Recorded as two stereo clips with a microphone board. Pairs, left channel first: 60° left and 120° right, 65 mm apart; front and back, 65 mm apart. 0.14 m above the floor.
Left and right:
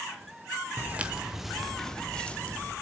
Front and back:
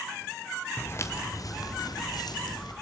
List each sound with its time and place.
0.8 s footsteps: 60° right, 1.4 m; by 2.7 s 10° right, 2.5 m